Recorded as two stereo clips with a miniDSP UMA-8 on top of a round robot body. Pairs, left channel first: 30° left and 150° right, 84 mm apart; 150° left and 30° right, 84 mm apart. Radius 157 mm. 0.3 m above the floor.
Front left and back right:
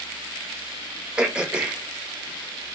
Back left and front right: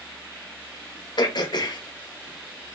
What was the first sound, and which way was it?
Throat clearing, 130° left.